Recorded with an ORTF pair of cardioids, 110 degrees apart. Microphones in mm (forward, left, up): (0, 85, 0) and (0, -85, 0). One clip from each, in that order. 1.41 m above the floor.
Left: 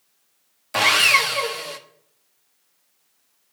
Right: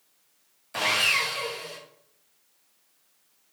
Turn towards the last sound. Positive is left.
turn(degrees=45)